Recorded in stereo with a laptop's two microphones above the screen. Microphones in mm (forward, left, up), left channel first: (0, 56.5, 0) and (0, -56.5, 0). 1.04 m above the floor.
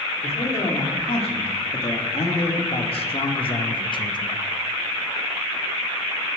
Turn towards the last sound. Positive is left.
turn(degrees=35)  # may be behind; listen again after turning